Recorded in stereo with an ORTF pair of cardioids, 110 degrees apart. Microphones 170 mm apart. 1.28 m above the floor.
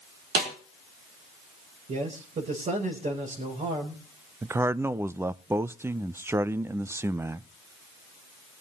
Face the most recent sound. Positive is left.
turn(degrees=-15)